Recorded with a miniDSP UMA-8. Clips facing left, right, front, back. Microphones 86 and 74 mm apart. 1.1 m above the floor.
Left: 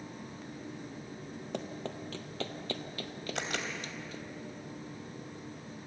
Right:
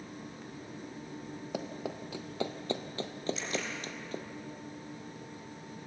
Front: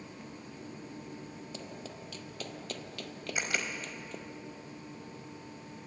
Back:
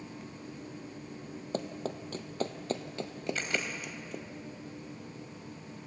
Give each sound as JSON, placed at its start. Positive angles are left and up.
{"t": 1.5, "sound": "running footsteps", "azimuth_deg": -175, "distance_m": 1.7}
{"t": 3.4, "sound": "a camera shutter", "azimuth_deg": 75, "distance_m": 3.5}